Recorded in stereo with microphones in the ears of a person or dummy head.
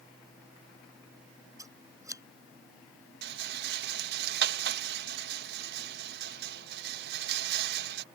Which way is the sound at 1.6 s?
10° right (ahead or behind).